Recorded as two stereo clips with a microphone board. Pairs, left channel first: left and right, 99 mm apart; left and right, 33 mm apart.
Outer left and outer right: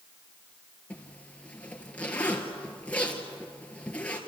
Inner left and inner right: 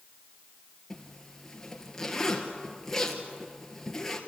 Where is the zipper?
15° left (ahead or behind), 2.5 m.